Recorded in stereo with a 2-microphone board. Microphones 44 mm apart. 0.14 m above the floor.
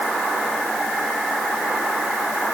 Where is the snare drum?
No snare drum in this recording.